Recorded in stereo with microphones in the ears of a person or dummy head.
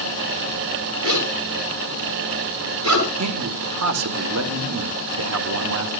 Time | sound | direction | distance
1.0 | a zipper | 85° right | 9 m
3.2 | a man speaking | 75° right (ahead or behind) | 1.3 m